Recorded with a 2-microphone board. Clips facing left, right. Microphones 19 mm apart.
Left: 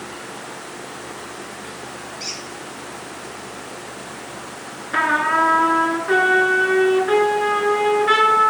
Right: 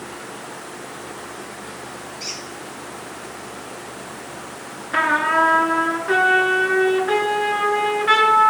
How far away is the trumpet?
About 0.9 m.